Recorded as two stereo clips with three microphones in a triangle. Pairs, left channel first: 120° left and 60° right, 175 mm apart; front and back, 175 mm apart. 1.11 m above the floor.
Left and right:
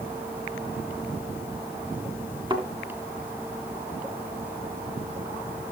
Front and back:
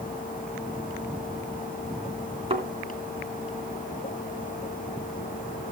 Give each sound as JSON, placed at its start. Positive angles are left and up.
{"t": 2.5, "sound": "a thud", "azimuth_deg": -125, "distance_m": 3.0}